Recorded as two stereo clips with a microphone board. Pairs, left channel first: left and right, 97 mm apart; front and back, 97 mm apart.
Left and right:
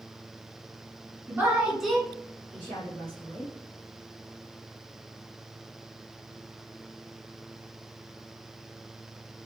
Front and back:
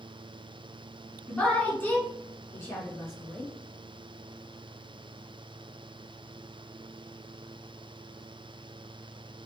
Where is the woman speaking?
65° right, 1.3 m; by 3.5 s 55° left, 2 m.